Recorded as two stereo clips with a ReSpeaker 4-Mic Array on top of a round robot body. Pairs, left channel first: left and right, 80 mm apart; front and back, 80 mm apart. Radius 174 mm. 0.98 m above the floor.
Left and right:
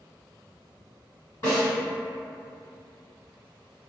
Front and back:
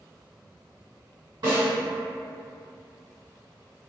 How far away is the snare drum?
About 1.6 m.